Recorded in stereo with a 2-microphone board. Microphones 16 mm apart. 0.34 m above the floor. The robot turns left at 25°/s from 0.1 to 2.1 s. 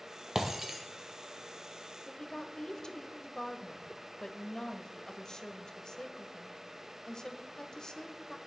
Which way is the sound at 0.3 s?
25° right (ahead or behind).